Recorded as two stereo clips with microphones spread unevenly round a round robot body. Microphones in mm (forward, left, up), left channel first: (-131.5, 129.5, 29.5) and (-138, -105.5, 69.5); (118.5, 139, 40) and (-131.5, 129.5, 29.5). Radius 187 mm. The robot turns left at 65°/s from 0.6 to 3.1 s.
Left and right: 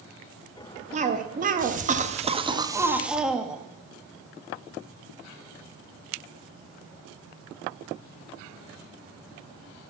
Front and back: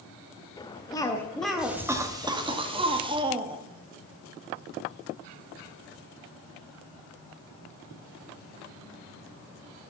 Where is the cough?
55° right, 0.8 m; by 3.6 s 160° left, 0.8 m.